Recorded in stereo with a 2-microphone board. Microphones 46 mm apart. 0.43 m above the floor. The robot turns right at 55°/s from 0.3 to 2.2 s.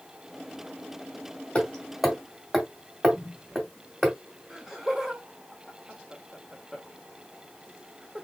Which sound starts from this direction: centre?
Laughter, at 4.5 s.